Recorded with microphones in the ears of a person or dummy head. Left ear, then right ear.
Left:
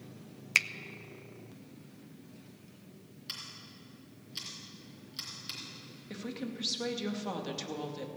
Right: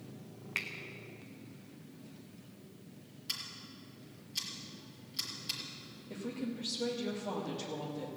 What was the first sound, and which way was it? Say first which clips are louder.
A finger snap: left 10 dB; 75° left (ahead or behind).